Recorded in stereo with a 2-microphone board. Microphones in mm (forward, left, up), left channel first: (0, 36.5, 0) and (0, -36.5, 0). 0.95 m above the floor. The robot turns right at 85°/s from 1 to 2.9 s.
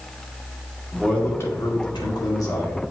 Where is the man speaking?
5° left, 1.8 m; by 2.9 s 165° left, 1.8 m.